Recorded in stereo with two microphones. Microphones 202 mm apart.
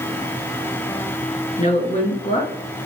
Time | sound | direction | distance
1.6 | a woman speaking | 40° left (ahead or behind) | 2.5 m